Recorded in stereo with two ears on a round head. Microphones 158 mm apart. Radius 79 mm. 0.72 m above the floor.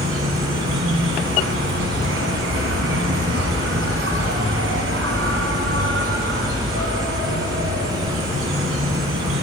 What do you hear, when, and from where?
0.0 s an insect: 80° right, 2.0 m